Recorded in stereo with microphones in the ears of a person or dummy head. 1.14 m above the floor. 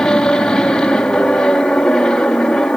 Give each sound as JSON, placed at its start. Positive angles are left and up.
{"t": 0.0, "sound": "an aircraft", "side_deg": 5}